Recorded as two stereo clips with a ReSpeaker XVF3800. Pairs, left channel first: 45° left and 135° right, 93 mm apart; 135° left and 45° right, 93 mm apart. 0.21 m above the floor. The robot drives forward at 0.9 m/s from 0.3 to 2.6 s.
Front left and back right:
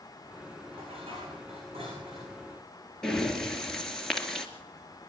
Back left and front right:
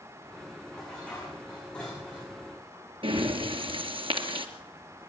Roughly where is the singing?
No singing in this recording.